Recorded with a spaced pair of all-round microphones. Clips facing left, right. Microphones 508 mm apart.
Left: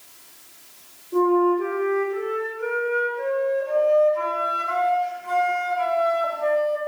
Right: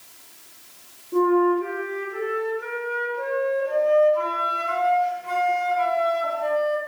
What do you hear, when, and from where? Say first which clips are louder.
1.1 s a flute: even; 45° right (ahead or behind), 3 m